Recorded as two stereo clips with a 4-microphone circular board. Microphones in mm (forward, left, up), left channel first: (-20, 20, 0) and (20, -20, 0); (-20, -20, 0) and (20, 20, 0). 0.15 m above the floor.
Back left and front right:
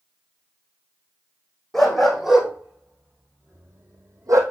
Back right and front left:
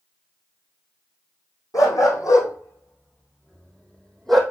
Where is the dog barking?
140° right, 3.5 m; by 4.4 s 50° right, 2.5 m.